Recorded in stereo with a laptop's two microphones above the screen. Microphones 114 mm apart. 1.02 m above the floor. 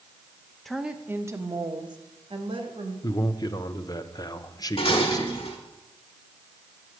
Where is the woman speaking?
Centre (ahead or behind), 0.8 m; by 2.9 s 60° right (ahead or behind), 2 m.